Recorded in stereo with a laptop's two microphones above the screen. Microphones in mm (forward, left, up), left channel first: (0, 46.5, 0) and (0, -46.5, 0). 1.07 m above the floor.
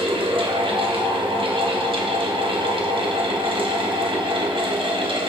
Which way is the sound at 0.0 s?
70° right (ahead or behind).